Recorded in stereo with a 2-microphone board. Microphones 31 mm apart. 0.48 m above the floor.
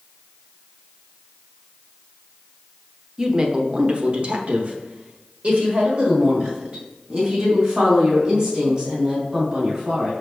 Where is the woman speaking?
20° right (ahead or behind), 1.0 m; by 10.1 s 45° right (ahead or behind), 4 m.